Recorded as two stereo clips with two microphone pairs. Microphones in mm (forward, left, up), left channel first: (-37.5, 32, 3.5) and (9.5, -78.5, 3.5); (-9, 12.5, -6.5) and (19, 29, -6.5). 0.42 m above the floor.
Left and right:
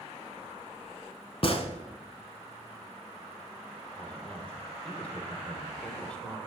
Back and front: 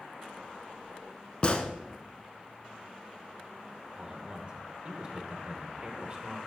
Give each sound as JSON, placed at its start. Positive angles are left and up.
{"t": 1.4, "sound": "a gunshot", "azimuth_deg": 155, "distance_m": 0.8}
{"t": 4.0, "sound": "a man speaking", "azimuth_deg": 40, "distance_m": 1.0}